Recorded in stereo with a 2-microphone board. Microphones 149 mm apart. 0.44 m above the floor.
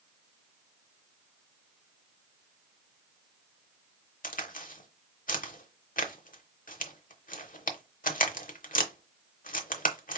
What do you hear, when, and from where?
4.2 s a crack: 65° left (ahead or behind), 0.9 m